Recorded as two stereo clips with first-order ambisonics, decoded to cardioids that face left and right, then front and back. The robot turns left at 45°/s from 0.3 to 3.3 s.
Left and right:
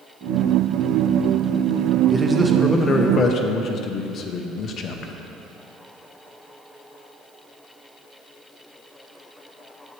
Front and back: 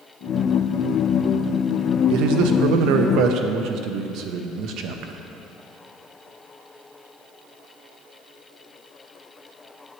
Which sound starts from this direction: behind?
A man speaking, at 2.1 s.